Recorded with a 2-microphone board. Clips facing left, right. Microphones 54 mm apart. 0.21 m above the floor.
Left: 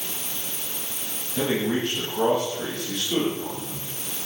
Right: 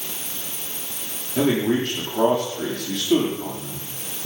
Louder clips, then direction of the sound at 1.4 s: Right 4 dB; 55° right (ahead or behind).